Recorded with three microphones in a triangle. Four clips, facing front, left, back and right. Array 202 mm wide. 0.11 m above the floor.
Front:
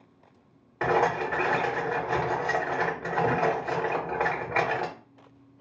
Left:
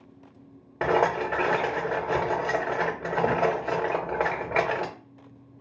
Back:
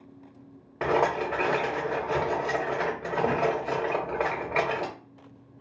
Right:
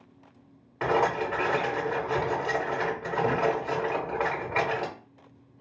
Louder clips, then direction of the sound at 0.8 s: Left 2 dB, even; 100° left.